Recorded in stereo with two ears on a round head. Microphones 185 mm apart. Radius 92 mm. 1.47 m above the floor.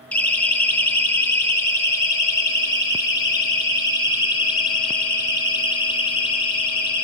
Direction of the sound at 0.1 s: 5° left (ahead or behind).